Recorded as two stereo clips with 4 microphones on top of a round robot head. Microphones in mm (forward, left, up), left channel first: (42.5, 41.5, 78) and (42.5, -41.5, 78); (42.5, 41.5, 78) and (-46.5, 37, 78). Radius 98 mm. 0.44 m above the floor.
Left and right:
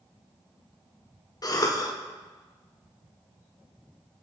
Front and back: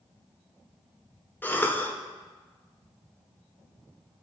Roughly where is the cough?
Ahead left.